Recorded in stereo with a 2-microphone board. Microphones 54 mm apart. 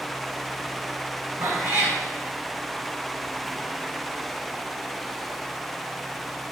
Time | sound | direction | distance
1.4 | a cat meowing | 60° right (ahead or behind) | 5.5 m